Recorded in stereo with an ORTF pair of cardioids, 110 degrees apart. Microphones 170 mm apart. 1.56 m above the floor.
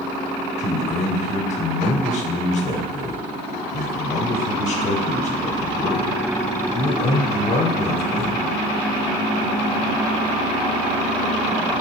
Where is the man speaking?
45° left, 0.8 m.